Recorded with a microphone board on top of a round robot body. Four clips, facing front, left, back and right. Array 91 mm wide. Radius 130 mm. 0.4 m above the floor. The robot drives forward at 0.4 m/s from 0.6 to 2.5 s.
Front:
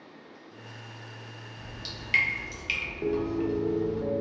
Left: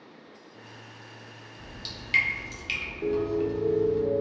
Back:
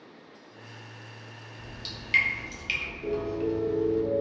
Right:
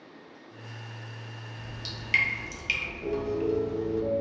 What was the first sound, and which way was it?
Dripping, 45° right.